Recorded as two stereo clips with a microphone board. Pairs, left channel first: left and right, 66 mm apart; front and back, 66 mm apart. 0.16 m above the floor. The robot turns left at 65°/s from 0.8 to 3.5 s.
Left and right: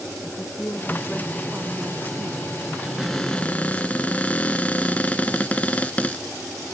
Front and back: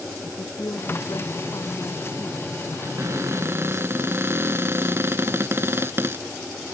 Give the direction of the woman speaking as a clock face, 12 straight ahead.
11 o'clock.